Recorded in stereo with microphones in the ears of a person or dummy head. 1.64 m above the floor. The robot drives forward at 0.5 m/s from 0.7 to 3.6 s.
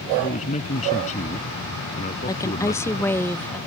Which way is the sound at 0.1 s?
40° left (ahead or behind).